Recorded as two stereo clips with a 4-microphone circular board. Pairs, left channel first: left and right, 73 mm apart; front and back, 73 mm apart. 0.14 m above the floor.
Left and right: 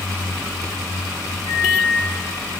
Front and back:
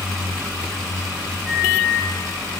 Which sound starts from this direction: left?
A microwave, at 1.5 s.